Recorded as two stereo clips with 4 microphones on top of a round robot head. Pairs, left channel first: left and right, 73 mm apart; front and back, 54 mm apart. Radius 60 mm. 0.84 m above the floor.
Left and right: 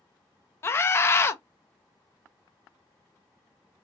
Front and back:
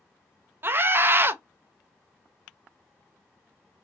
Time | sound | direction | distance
0.6 | a scream | 140° left | 0.6 m